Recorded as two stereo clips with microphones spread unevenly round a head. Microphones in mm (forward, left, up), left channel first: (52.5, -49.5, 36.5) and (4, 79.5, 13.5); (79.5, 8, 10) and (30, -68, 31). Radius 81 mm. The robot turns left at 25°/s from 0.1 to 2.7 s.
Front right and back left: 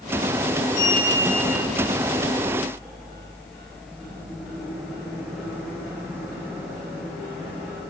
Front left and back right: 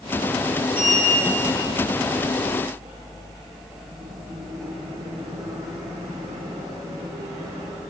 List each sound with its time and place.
0.7 s a sliding door: 120° right, 4 m; by 7.8 s 170° right, 4 m